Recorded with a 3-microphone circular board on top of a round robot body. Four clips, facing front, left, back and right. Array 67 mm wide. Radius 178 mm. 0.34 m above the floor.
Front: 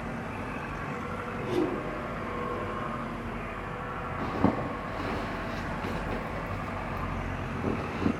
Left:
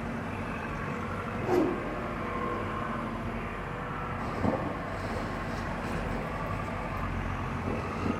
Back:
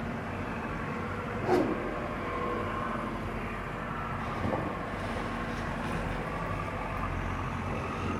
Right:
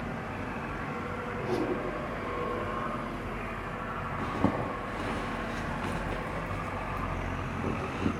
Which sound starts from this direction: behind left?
A whoosh, at 1.4 s.